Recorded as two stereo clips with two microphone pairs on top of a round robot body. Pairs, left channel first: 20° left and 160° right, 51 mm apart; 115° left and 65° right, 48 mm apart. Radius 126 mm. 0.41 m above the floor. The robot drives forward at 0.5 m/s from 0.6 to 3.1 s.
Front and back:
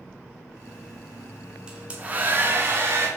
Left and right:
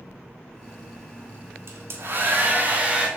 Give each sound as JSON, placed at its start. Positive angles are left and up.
{"t": 1.7, "sound": "a hair dryer", "azimuth_deg": -95, "distance_m": 0.9}